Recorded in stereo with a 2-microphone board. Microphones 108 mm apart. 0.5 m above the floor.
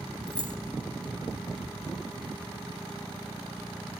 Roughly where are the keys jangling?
Right.